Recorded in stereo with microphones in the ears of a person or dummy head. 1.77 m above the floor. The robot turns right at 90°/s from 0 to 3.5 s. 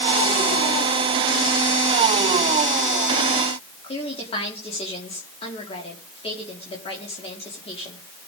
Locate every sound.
3.8 s a woman speaking: 25° left (ahead or behind), 4.5 m